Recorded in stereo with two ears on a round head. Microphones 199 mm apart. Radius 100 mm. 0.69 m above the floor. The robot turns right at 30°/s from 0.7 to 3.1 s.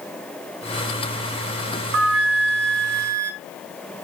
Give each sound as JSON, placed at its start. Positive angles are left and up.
{"t": 1.9, "sound": "a flute", "azimuth_deg": -125, "distance_m": 1.3}